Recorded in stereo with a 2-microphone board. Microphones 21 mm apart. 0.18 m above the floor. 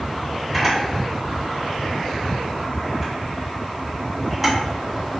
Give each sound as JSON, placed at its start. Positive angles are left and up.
{"t": 0.5, "sound": "a camera shutter", "side_deg": 0, "distance_m": 1.7}